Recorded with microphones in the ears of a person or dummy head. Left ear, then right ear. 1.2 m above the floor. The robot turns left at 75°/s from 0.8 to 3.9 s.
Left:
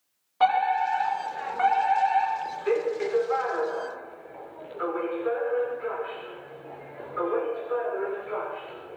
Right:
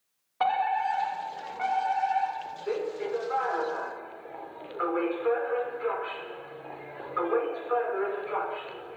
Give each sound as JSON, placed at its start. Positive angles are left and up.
{"t": 0.4, "sound": "a fire alarm", "azimuth_deg": -170, "distance_m": 6.0}